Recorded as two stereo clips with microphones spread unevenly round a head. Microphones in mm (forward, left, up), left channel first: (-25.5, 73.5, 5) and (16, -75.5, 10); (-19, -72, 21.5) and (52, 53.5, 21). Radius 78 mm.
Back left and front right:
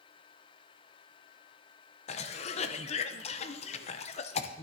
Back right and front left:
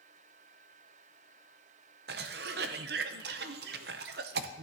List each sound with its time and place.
2.1 s a cough: 55° left, 0.7 m